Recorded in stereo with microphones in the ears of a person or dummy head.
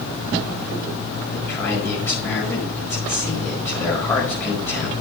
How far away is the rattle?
I don't hear a rattle.